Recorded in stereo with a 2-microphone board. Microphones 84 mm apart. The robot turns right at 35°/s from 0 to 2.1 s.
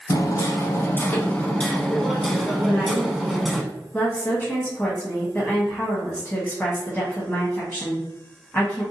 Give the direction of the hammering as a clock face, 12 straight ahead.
8 o'clock.